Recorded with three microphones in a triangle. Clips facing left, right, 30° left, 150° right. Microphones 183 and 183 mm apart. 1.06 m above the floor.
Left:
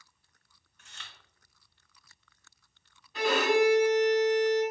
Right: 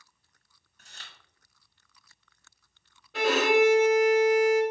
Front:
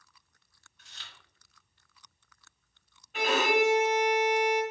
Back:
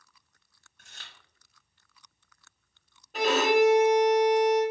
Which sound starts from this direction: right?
A violin, at 3.1 s.